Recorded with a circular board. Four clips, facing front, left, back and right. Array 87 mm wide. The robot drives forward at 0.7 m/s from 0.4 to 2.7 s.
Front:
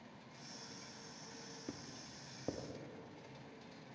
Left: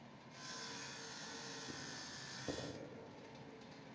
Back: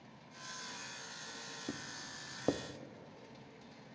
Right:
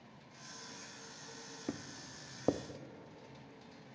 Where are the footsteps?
105° right, 1.5 m; by 2.6 s 125° right, 1.8 m.